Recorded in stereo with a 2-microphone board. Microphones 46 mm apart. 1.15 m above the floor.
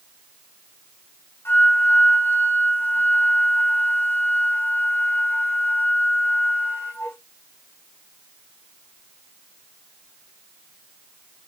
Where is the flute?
60° left (ahead or behind), 2 m.